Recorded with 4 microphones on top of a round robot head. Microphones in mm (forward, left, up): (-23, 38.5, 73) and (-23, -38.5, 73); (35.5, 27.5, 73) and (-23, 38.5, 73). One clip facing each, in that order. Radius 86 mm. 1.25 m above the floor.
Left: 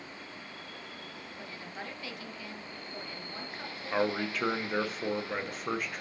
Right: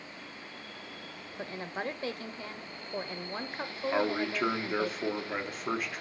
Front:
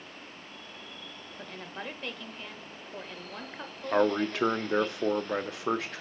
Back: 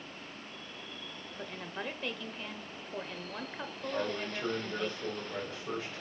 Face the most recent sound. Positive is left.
turn(degrees=0)